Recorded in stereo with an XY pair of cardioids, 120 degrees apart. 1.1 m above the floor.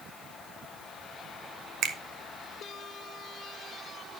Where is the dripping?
No dripping in this recording.